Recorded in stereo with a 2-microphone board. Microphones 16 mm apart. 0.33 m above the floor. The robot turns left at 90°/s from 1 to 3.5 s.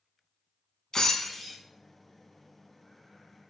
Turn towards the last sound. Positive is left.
turn(degrees=-175)